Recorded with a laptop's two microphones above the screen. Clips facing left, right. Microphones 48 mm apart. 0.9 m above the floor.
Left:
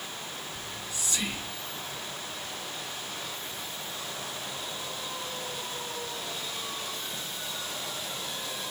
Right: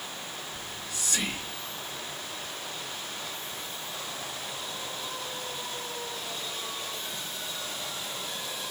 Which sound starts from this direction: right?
Whispering, at 0.5 s.